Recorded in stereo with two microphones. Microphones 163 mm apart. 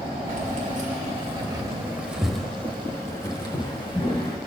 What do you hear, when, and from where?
0.3 s keys jangling: 55° right (ahead or behind), 1.3 m; by 4.4 s 35° left (ahead or behind), 1.8 m